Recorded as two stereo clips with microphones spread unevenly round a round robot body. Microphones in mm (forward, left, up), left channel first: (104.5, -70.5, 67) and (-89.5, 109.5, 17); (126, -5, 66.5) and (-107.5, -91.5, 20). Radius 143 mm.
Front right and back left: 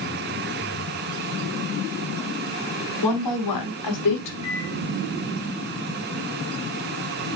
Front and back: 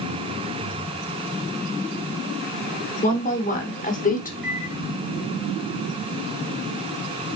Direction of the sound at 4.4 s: 110° right.